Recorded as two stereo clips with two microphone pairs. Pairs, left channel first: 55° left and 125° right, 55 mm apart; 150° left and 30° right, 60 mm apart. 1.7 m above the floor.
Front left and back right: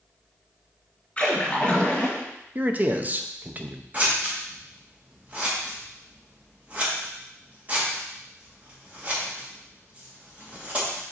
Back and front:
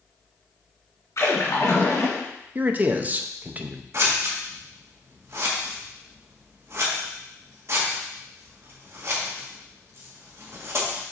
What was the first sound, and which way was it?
A splash, 125° left.